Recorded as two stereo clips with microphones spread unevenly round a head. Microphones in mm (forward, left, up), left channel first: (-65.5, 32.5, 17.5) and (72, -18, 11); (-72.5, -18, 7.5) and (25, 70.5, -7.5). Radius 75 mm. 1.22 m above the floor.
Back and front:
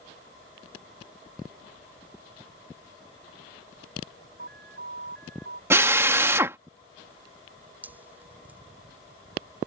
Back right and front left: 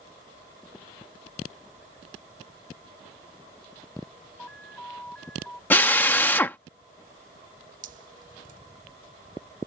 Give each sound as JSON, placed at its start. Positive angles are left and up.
{"t": 4.4, "sound": "an alarm", "azimuth_deg": -55}
{"t": 5.7, "sound": "a drill", "azimuth_deg": -85}
{"t": 7.8, "sound": "dripping", "azimuth_deg": 60}